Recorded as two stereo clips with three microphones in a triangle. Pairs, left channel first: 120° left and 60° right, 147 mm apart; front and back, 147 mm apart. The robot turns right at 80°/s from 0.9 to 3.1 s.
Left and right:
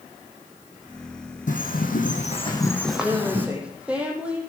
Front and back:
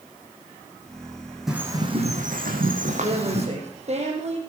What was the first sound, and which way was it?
A bird, 95° left.